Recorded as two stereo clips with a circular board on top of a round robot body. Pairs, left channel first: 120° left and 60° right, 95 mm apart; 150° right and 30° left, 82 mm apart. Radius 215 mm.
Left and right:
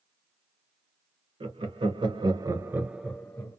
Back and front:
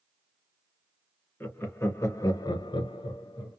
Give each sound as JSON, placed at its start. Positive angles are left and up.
{"t": 1.4, "sound": "laughter", "azimuth_deg": -85, "distance_m": 1.0}